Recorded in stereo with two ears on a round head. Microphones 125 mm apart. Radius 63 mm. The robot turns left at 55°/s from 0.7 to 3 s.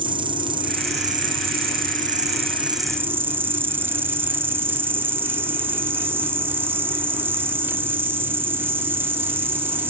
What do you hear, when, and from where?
0.0 s an insect: 35° right; by 9.9 s 165° right